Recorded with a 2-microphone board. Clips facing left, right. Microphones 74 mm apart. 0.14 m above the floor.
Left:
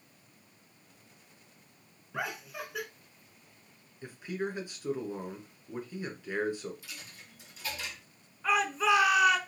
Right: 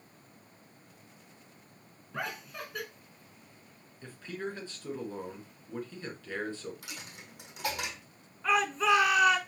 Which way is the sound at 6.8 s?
80° right.